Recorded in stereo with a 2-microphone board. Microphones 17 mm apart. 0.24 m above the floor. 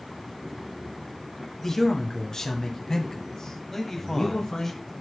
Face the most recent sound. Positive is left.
turn(degrees=25)  # may be behind; listen again after turning